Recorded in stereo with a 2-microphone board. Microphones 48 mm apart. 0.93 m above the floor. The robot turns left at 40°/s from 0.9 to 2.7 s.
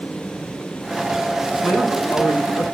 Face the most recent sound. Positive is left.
turn(degrees=90)